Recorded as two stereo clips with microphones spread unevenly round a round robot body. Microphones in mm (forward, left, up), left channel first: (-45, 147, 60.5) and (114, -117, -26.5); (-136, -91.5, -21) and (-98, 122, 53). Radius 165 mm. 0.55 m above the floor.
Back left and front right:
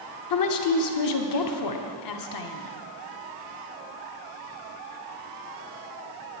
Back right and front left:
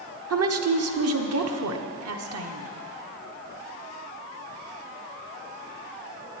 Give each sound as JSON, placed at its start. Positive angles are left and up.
{"t": 0.3, "sound": "a woman speaking", "azimuth_deg": 95, "distance_m": 1.2}